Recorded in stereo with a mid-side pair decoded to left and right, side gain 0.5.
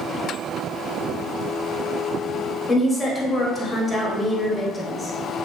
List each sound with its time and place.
2.7 s a woman speaking: 30° left, 1.1 m